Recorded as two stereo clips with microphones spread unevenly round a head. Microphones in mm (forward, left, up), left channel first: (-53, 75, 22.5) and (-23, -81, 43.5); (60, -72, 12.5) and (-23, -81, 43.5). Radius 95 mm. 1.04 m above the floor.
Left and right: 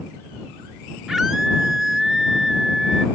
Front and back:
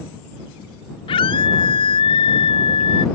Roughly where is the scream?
Ahead.